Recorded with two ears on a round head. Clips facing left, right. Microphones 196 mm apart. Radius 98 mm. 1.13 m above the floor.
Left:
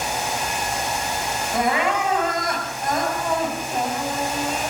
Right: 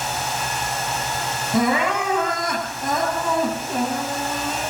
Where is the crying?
85° right, 9.5 m.